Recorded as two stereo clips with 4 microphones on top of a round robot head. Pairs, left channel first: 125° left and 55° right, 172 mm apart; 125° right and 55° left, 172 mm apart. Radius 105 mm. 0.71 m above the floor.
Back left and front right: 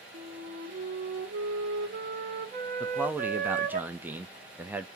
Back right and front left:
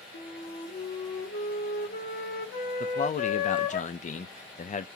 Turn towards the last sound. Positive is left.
turn(degrees=-130)